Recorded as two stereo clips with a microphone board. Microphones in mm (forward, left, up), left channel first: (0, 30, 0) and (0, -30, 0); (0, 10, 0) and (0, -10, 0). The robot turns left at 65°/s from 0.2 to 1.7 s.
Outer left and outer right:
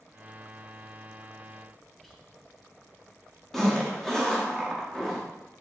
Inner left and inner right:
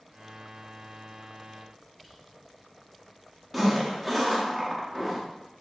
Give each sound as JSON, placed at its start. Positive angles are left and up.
{"t": 2.0, "sound": "whispering", "side_deg": 5, "distance_m": 0.9}
{"t": 3.5, "sound": "a zipper", "side_deg": 5, "distance_m": 0.8}